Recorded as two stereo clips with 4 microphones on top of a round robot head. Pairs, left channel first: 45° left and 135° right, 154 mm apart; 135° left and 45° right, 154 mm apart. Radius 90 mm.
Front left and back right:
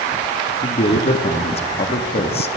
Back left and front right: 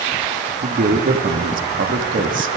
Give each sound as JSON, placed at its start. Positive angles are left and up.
{"t": 0.6, "sound": "a man speaking", "azimuth_deg": -10, "distance_m": 1.7}